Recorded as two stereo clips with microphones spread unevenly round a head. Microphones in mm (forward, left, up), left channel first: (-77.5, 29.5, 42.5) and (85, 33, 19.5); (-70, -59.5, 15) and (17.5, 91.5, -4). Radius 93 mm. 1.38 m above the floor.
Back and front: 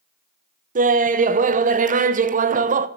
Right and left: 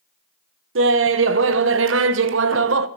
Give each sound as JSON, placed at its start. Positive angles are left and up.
{"t": 0.8, "sound": "laughter", "azimuth_deg": 40, "distance_m": 0.9}